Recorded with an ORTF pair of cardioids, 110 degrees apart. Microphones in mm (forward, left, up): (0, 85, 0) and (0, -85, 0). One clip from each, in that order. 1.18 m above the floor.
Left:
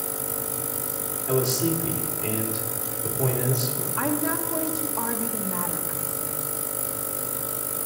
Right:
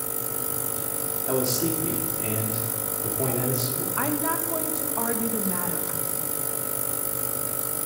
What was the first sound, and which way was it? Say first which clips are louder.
A man speaking: left 2 dB; straight ahead.